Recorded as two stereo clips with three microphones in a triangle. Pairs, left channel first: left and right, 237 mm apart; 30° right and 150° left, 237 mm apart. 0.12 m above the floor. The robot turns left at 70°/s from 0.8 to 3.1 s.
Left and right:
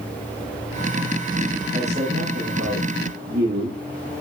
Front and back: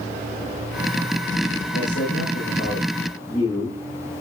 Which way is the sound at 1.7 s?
20° right.